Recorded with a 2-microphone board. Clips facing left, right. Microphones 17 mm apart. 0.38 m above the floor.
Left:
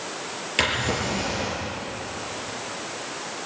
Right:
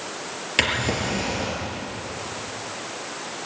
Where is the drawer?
10° right (ahead or behind), 4 m.